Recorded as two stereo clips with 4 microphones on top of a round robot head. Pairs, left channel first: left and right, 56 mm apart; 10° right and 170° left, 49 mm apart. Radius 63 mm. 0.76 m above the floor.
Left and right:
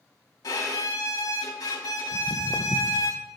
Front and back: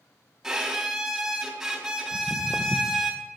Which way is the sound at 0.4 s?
95° left.